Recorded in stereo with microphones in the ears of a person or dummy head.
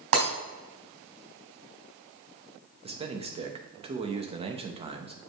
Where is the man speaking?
30° right (ahead or behind), 1.0 m.